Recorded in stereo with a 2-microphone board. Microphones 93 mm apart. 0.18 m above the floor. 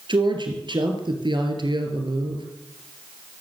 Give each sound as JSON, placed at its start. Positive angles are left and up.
{"t": 0.1, "sound": "a woman speaking", "side_deg": -55, "distance_m": 3.5}